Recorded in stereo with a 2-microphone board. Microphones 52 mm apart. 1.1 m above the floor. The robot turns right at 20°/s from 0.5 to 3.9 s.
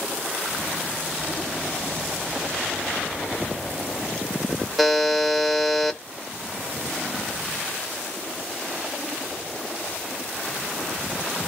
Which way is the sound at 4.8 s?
Centre (ahead or behind).